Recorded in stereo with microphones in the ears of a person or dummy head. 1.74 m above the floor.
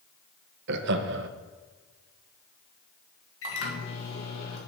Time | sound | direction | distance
0.7 | laughter | 70° right (ahead or behind) | 0.7 m
3.4 | a microwave | 80° left | 1.7 m